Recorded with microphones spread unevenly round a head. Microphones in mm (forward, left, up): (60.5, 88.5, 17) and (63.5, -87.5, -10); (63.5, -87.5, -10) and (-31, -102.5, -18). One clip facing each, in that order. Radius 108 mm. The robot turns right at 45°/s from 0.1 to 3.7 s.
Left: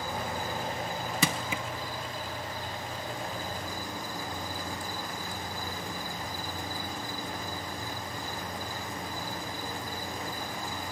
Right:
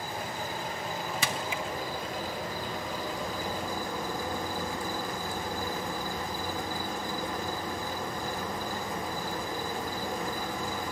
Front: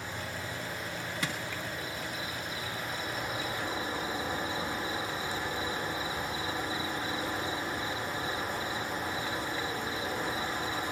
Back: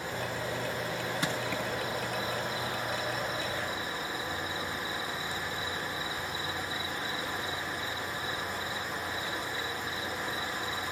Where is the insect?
140° left, 5 m; by 10.9 s 60° right, 5 m.